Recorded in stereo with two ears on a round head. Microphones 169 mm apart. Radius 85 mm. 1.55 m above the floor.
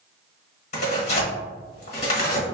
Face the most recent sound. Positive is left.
turn(degrees=40)  # may be behind; listen again after turning